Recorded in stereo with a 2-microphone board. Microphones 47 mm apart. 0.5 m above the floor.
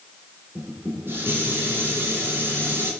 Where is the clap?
No clap in this recording.